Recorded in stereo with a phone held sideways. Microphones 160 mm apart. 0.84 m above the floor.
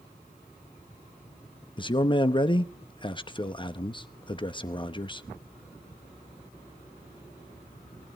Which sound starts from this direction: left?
A man speaking, at 1.8 s.